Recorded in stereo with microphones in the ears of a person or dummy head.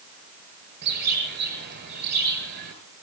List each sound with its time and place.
0.8 s a bird: 55° right (ahead or behind), 6 m